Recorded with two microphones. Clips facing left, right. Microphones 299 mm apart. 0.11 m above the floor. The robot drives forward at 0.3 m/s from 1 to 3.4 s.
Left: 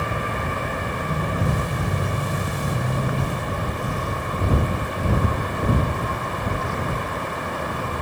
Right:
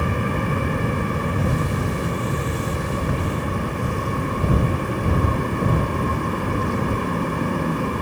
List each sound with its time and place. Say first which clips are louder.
0.0 s an aircraft: right 5 dB; 45° right (ahead or behind); by 8.0 s 40° right (ahead or behind)